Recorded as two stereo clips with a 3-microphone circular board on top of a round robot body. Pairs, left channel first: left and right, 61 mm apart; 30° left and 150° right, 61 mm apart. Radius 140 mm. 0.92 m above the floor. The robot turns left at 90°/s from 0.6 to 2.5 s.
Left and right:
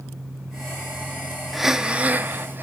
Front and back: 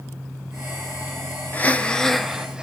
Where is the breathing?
Straight ahead, 0.8 m; by 2.6 s 85° right, 0.8 m.